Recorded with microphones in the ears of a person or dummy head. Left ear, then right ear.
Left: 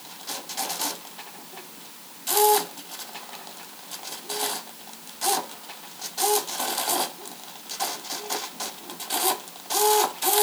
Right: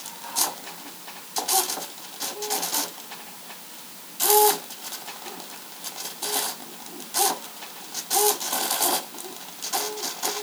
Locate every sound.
Only background noise.